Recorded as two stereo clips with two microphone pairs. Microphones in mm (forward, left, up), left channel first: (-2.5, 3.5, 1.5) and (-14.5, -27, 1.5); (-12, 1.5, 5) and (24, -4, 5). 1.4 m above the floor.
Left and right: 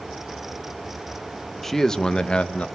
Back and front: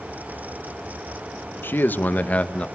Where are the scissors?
I don't hear scissors.